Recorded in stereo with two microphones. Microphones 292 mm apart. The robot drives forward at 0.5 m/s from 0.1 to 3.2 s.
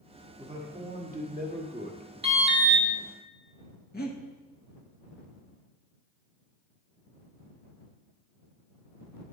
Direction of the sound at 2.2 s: 20° right (ahead or behind).